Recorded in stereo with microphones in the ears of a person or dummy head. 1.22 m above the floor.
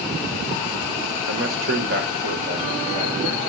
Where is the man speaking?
65° right (ahead or behind), 1.2 m; by 3.4 s 40° right (ahead or behind), 2.5 m.